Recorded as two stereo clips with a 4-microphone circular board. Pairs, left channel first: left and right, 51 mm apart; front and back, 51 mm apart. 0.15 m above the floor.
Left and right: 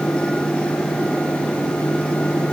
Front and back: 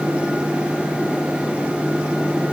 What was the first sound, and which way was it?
Only background noise.